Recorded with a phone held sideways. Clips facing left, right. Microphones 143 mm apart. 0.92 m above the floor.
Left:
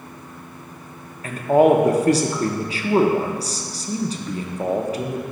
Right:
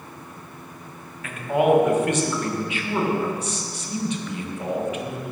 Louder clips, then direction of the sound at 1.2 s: Left 5 dB; 35° left (ahead or behind).